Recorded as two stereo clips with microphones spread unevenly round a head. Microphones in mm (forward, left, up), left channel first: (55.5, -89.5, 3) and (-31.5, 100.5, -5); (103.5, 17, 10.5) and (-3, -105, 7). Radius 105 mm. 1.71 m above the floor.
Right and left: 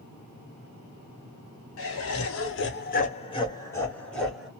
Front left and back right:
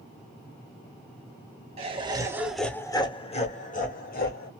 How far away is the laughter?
About 1.1 m.